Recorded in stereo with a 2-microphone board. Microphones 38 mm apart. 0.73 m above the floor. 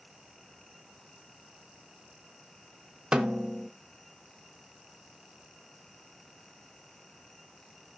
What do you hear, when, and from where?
3.1 s a snare drum: 20° right (ahead or behind), 0.5 m